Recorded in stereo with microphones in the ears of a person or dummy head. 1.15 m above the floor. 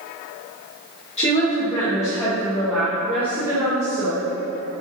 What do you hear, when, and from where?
1.2 s a woman speaking: 25° left (ahead or behind), 1.6 m; by 4.2 s 25° right (ahead or behind), 2 m